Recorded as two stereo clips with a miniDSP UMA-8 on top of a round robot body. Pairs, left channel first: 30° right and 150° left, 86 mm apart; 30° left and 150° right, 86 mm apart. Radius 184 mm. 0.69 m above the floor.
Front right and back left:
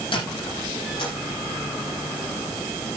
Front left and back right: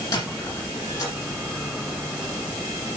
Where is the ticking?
No ticking in this recording.